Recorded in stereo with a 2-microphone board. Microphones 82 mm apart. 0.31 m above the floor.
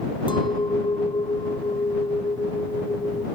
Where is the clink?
75° left (ahead or behind).